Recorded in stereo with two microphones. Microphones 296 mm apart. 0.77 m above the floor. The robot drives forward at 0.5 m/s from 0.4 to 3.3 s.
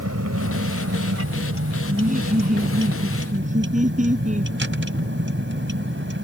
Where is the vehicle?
60° right (ahead or behind); by 6.2 s 40° right (ahead or behind).